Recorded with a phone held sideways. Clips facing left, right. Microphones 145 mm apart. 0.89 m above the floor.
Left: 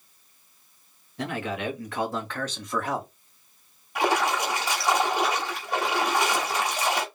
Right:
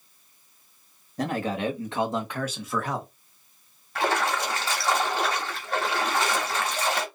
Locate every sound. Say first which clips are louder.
1.2 s a man speaking: right 3 dB; 40° right (ahead or behind), 1.4 m; by 3.1 s 5° left (ahead or behind), 1.2 m
4.0 s a splash: left 2 dB; 15° left (ahead or behind), 1.2 m